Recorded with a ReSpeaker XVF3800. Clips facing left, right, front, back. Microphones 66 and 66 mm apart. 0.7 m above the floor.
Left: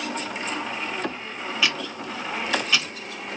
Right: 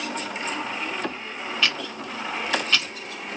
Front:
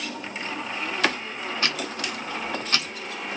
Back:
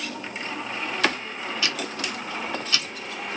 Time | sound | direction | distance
1.6 | ticking | 5° left | 0.5 m